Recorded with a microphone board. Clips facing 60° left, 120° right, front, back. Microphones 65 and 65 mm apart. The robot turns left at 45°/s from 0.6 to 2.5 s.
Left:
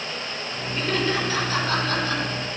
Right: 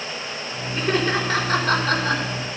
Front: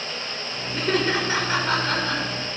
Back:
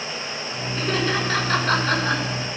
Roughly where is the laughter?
Ahead right.